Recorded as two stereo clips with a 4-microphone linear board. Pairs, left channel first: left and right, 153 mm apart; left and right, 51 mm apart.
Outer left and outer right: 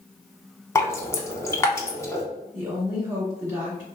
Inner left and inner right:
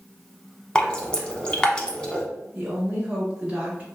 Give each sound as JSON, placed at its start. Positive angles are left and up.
{"t": 0.8, "sound": "dripping", "side_deg": 20, "distance_m": 0.6}
{"t": 2.5, "sound": "a woman speaking", "side_deg": -20, "distance_m": 1.1}